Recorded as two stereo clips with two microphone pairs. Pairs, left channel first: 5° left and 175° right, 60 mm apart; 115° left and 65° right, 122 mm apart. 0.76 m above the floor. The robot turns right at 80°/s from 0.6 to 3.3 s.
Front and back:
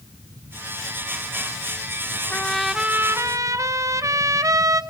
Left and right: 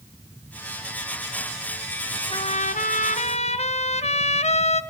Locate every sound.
2.3 s a trumpet: 70° left, 0.6 m; by 4.8 s 150° left, 0.6 m